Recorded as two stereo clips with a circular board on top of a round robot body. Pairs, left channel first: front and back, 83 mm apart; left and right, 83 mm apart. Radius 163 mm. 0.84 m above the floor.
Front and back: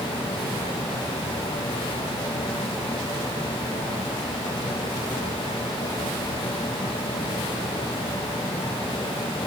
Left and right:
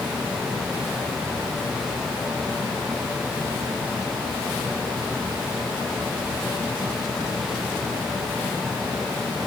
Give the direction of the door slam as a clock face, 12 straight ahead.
I don't hear a door slam.